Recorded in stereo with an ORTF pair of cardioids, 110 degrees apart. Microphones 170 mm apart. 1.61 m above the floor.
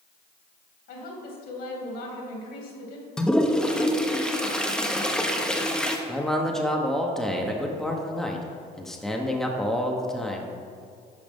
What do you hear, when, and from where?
0.9 s a woman speaking: 65° left, 2.5 m
3.2 s a toilet flushing: 5° left, 0.8 m
6.1 s a man speaking: straight ahead, 0.9 m